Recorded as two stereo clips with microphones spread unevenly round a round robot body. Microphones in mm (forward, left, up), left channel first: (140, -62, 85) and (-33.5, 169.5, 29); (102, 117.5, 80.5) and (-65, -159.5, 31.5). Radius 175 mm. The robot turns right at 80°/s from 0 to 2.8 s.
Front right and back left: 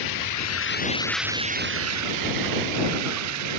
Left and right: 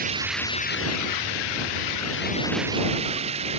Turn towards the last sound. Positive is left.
turn(degrees=165)